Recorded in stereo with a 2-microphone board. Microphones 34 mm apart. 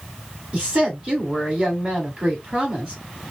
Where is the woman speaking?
40° right (ahead or behind), 1.7 m.